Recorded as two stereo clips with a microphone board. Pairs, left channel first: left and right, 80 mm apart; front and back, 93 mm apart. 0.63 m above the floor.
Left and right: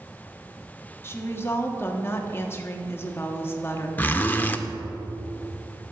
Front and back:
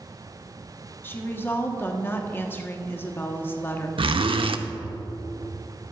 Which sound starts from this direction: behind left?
A zipper, at 4.0 s.